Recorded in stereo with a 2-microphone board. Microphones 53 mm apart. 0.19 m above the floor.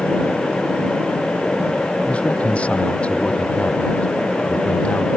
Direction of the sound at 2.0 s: 20° left (ahead or behind).